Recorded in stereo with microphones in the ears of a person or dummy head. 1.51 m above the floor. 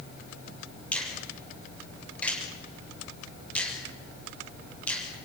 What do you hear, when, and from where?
0.9 s a finger snap: 5° left (ahead or behind), 7 m